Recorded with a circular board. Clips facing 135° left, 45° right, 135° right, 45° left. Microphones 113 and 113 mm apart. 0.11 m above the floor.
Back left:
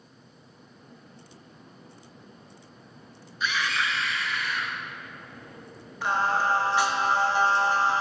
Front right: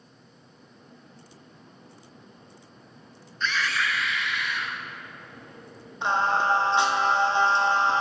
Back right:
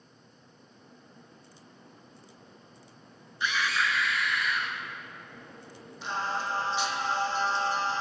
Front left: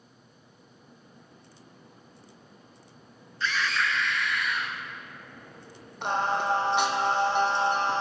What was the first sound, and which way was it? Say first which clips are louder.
A scream: even, front left 1 dB; 165° right.